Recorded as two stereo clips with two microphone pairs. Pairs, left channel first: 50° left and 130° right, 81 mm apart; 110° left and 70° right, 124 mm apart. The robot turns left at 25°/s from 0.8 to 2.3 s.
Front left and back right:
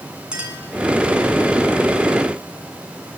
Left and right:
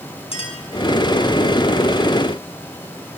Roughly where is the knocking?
No knocking in this recording.